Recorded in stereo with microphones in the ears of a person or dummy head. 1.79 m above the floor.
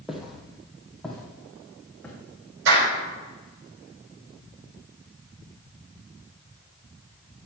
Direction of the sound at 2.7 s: 70° right (ahead or behind).